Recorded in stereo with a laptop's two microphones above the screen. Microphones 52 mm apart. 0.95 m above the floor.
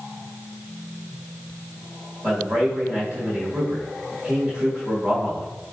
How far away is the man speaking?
About 1.5 m.